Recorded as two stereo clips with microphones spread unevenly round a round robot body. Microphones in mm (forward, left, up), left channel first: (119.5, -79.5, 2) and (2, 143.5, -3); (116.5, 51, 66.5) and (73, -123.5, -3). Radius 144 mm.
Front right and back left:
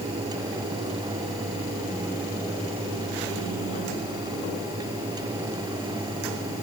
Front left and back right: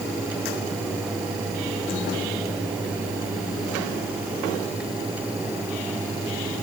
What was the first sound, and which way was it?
Only background noise.